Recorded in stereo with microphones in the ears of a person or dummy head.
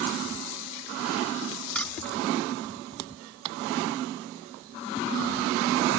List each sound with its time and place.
1.8 s keys jangling: 5° left (ahead or behind)